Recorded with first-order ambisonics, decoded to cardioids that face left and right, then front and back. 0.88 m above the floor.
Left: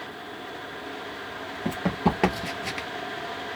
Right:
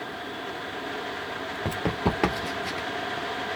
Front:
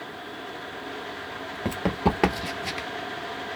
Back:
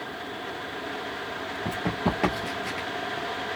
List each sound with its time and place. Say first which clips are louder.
1.6 s running footsteps: left 2 dB, front 3 dB; 35° right, 0.9 m; by 2.9 s 60° left, 0.9 m